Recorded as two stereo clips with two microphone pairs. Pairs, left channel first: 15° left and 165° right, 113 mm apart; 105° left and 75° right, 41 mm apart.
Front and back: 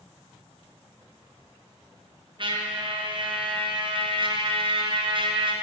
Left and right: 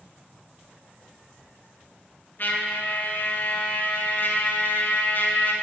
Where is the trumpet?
145° left, 1.2 m.